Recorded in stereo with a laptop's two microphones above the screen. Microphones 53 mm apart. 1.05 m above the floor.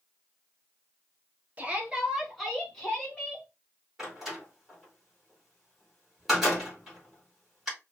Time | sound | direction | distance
1.6 | a shout | 30° right (ahead or behind) | 1.0 m
4.0 | a door slam | 5° right (ahead or behind) | 2 m